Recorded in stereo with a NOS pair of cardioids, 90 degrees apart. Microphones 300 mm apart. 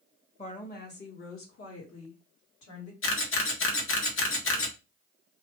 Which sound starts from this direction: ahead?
A woman speaking, at 0.4 s.